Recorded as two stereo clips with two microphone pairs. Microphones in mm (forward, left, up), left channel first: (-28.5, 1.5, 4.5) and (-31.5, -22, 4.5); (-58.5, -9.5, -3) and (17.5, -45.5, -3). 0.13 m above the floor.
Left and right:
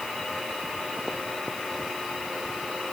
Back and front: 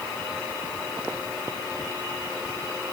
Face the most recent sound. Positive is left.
No sound to turn to.